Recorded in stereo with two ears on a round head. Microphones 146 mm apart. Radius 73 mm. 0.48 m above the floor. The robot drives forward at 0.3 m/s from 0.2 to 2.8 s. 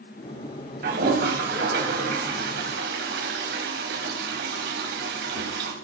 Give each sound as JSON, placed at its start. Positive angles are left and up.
{"t": 0.8, "sound": "a toilet flushing", "side_deg": -60, "distance_m": 3.5}